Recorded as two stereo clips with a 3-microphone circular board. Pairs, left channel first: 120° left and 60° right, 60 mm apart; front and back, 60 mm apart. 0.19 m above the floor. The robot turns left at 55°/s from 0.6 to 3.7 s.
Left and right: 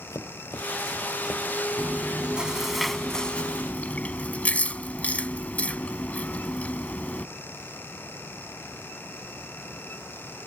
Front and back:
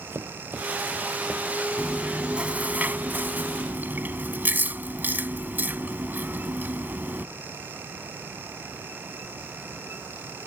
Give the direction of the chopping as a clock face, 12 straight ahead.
8 o'clock.